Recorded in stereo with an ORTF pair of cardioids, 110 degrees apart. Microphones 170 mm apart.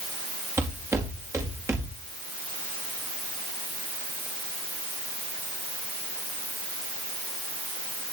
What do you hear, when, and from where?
0.6 s footsteps: 15° right, 4.5 m